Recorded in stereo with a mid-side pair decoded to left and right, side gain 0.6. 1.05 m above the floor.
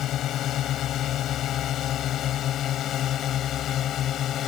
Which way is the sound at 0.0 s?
55° left.